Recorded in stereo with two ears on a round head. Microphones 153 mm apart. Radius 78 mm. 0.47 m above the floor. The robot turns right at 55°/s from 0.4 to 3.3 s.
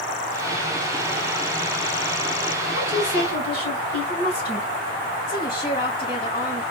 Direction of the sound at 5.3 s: 60° left (ahead or behind).